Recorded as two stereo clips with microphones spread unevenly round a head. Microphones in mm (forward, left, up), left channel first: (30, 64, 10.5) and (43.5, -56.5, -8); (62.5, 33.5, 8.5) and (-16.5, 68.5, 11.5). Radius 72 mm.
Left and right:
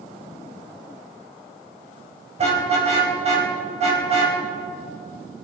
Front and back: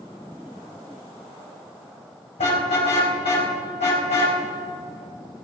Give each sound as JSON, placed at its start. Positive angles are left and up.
{"t": 2.4, "sound": "a car horn", "azimuth_deg": -45, "distance_m": 4.5}